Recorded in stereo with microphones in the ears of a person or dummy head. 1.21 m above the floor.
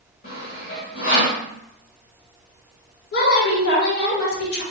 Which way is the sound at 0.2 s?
40° left (ahead or behind).